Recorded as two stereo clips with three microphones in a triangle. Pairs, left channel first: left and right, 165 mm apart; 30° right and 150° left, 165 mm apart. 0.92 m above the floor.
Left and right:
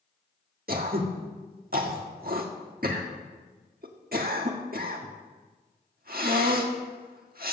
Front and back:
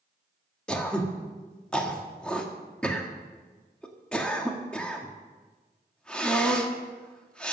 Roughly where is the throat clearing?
Behind right.